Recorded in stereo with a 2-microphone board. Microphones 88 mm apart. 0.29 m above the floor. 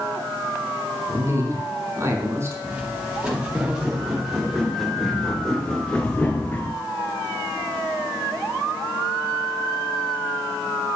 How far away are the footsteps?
About 3 m.